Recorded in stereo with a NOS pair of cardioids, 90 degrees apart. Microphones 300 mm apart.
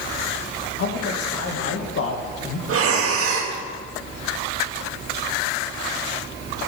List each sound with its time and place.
0.8 s a man speaking: 55° left, 2 m
2.7 s breathing: 55° right, 1.9 m